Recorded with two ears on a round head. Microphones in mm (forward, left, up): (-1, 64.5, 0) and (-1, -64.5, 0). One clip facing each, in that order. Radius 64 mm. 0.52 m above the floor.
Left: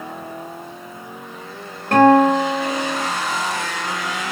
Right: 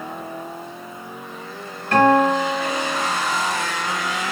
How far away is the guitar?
About 1.5 m.